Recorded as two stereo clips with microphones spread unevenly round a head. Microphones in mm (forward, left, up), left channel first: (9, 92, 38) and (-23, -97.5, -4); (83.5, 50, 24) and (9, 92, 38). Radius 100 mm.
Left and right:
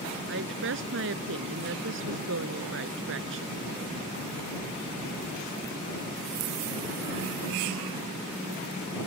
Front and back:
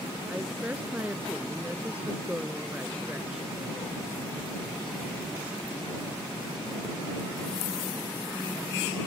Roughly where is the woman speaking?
Behind right.